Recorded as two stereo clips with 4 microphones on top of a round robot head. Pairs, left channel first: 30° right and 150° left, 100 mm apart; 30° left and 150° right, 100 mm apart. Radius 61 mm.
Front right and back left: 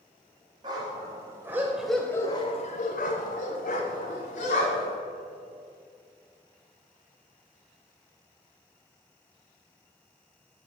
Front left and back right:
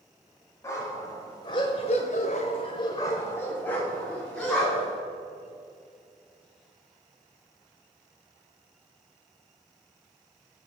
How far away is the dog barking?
About 1.5 m.